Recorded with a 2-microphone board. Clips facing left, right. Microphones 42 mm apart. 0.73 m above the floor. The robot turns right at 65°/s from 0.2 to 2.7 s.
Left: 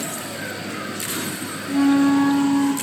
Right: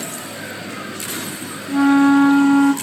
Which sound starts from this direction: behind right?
A flute, at 1.7 s.